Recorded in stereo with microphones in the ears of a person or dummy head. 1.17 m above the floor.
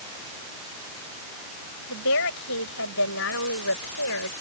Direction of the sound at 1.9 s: 70° left (ahead or behind).